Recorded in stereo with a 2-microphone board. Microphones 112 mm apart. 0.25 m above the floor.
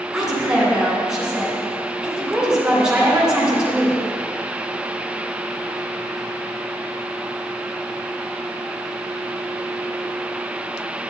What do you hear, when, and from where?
0.1 s a woman speaking: 5° right (ahead or behind), 2.5 m